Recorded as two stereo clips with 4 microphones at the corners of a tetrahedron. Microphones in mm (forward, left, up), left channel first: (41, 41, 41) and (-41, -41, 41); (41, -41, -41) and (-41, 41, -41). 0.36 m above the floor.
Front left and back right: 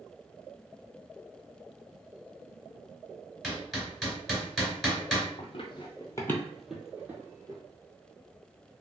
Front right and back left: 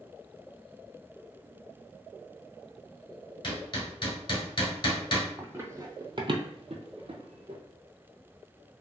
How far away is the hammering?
About 1.5 m.